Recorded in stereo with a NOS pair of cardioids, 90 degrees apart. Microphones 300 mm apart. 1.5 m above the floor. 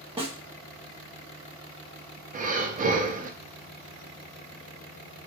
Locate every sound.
0.2 s a snare drum: 15° right, 1.0 m
2.3 s breathing: 25° right, 0.6 m